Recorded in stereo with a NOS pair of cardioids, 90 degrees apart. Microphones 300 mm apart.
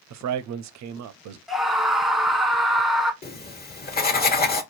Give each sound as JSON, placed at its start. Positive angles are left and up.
{"t": 0.1, "sound": "a man speaking", "azimuth_deg": -65, "distance_m": 0.6}
{"t": 1.5, "sound": "a scream", "azimuth_deg": 0, "distance_m": 1.1}
{"t": 3.2, "sound": "writing", "azimuth_deg": 30, "distance_m": 1.3}